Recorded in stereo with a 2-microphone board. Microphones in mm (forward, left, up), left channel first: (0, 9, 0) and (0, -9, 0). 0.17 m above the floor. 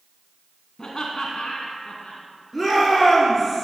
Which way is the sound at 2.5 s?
5° left (ahead or behind).